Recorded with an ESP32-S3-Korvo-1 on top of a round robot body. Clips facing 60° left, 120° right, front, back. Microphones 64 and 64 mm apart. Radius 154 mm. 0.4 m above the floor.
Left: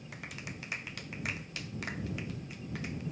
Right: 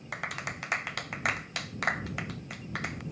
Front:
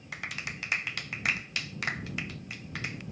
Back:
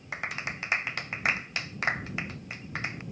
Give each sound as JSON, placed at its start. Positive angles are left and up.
{"t": 0.1, "sound": "a clap", "azimuth_deg": -120}